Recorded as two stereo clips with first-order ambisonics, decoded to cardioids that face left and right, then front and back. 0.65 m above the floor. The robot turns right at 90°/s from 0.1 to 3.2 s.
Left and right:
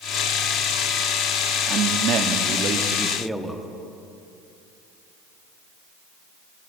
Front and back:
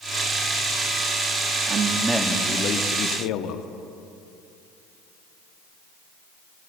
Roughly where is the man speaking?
Behind right.